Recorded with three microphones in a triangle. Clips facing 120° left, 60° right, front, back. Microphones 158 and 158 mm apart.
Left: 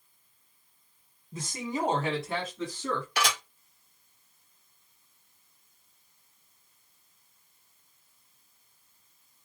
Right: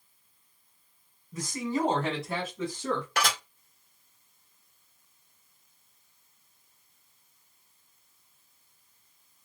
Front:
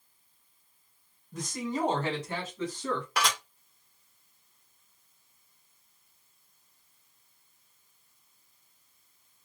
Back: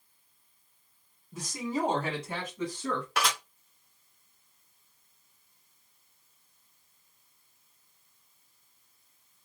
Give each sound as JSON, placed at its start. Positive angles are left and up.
{"t": 1.3, "sound": "a man speaking", "azimuth_deg": 105, "distance_m": 1.8}
{"t": 3.2, "sound": "dishes clattering", "azimuth_deg": -90, "distance_m": 2.0}